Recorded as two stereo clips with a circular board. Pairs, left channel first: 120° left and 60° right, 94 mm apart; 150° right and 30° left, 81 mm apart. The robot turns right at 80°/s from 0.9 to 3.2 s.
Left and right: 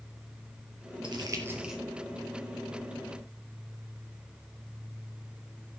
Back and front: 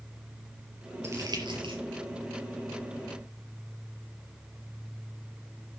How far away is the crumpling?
About 4.5 m.